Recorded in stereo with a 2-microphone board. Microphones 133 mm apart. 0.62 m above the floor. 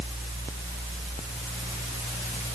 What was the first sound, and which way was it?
Only background noise.